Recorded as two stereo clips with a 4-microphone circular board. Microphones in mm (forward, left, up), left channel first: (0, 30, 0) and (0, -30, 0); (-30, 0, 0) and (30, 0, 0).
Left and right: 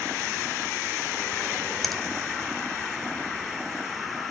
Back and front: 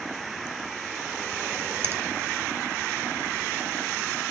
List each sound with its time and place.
1.8 s a finger snap: straight ahead, 1.1 m